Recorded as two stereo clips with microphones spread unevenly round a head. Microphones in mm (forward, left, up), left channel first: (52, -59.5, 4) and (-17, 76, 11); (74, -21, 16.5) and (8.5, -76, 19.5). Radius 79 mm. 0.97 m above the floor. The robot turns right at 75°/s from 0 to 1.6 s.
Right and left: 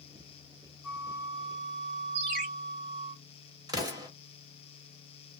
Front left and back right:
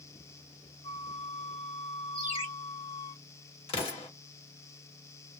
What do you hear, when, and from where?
0.8 s a flute: 30° left, 1.5 m; by 3.1 s 85° left, 1.5 m
2.1 s a ringtone: 95° left, 1.5 m
3.7 s an explosion: 50° left, 1.0 m